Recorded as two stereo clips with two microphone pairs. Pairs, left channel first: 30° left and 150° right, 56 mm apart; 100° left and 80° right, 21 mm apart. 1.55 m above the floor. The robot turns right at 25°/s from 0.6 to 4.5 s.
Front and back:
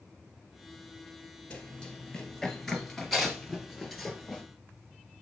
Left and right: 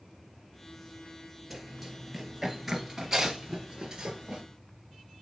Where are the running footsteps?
5° left, 1.6 m; by 4.4 s 50° right, 1.9 m.